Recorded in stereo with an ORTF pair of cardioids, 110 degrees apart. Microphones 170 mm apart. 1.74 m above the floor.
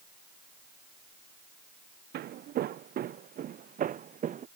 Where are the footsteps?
65° right; by 4.5 s 50° right.